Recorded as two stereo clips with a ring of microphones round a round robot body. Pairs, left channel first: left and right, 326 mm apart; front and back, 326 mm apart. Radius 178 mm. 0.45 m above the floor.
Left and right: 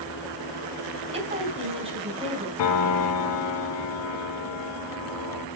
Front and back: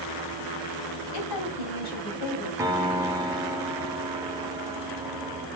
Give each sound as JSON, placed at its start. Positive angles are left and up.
{"t": 1.1, "sound": "a woman speaking", "azimuth_deg": -20, "distance_m": 2.5}
{"t": 2.6, "sound": "a piano", "azimuth_deg": 100, "distance_m": 0.7}